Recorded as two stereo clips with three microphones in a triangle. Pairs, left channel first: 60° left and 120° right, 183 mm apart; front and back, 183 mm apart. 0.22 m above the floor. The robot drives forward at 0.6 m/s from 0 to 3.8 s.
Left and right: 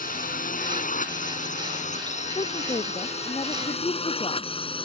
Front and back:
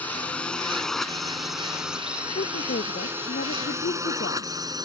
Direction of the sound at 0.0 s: 80° left.